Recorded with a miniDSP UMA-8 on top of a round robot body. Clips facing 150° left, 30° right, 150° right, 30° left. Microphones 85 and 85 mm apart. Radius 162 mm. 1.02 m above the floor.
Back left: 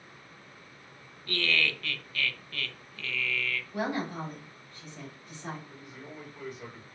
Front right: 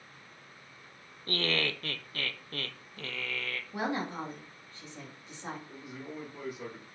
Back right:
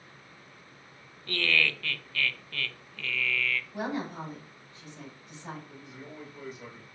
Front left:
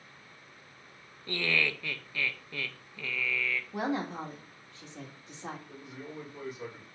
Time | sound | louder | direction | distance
1.3 | laughter | back left 1 dB, back right 2 dB | 35° right | 0.6 m
3.7 | a woman speaking | back left 1 dB, front left 5 dB | 35° left | 1.8 m
5.7 | a man speaking | front right 3 dB, front left 2 dB | 5° right | 3 m